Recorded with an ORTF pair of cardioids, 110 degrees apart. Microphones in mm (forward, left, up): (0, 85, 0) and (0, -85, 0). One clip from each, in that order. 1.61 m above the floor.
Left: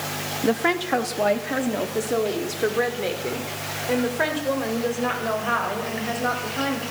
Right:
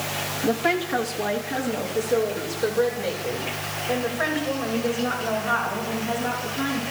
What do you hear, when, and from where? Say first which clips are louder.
0.4 s a woman speaking: left 1 dB; 40° left, 3 m; by 6.8 s 55° left, 10 m